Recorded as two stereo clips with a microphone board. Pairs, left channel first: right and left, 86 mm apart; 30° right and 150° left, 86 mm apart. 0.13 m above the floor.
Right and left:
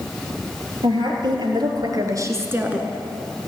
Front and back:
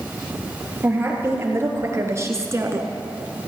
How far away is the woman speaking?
About 3 m.